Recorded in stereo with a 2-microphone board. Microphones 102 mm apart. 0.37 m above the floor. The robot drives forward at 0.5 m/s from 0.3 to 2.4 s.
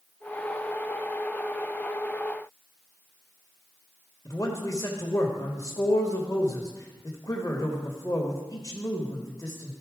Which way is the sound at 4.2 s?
35° left (ahead or behind).